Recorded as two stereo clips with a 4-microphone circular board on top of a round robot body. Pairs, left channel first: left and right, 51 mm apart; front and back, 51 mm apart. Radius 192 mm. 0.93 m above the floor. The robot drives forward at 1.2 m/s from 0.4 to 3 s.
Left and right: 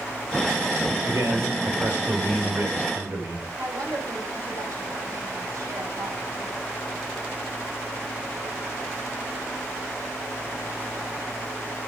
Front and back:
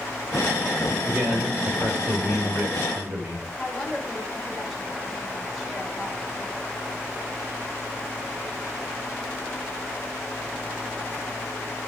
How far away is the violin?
I don't hear a violin.